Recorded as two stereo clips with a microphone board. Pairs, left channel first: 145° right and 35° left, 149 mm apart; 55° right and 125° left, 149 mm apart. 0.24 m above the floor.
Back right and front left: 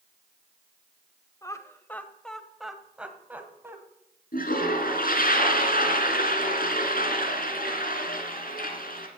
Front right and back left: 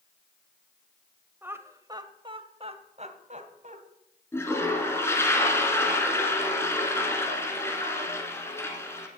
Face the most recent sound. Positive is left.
turn(degrees=-130)